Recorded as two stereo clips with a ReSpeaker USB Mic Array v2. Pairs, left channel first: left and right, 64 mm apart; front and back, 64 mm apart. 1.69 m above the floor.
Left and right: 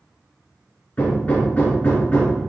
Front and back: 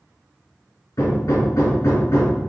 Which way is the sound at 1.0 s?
35° left.